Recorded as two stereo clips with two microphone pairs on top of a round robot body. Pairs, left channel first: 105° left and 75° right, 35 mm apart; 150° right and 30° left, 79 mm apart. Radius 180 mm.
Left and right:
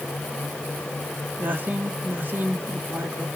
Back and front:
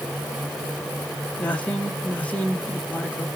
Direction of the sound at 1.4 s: 85° right.